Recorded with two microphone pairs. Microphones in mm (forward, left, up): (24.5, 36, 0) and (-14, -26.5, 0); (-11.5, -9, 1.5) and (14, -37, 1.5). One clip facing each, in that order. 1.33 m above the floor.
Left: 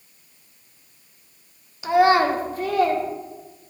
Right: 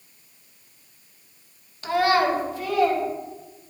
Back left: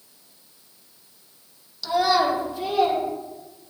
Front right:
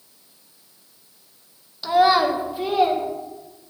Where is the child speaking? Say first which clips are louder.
Left 4 dB, front right 4 dB; 15° right, 0.7 m; by 3.0 s 25° left, 1.8 m.